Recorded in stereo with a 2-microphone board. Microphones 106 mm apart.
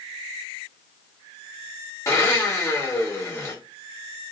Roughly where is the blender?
Left.